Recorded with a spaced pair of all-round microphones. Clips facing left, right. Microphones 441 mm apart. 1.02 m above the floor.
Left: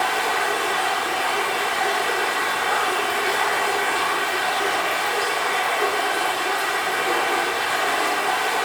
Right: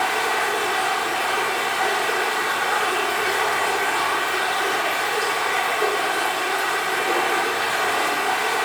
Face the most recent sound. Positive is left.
turn(degrees=-65)  # may be behind; listen again after turning